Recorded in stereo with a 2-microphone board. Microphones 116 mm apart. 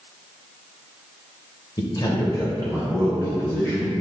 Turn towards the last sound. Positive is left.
turn(degrees=25)  # may be behind; listen again after turning